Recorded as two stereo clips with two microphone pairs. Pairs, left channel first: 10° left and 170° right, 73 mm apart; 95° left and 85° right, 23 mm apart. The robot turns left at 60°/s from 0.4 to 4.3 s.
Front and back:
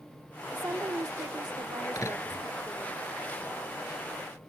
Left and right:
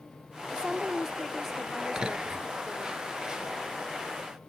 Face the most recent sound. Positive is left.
turn(degrees=-175)